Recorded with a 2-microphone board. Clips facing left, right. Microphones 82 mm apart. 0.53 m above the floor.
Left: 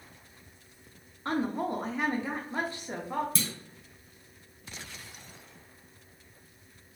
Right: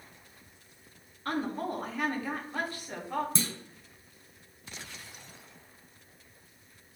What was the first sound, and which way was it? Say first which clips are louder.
A woman speaking: left 2 dB; 25° left (ahead or behind).